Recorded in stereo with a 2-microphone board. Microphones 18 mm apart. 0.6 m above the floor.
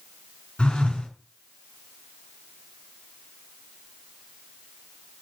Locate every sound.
0.6 s a phone buzzing: 70° left (ahead or behind), 2 m